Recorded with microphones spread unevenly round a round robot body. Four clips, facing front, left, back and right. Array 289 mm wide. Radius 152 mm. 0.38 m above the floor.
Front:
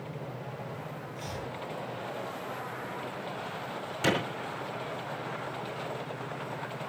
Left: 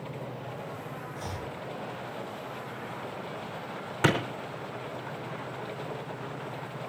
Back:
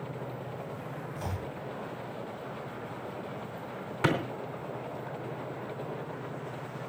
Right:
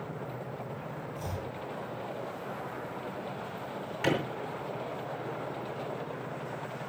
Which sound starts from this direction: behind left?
A clap, at 4.0 s.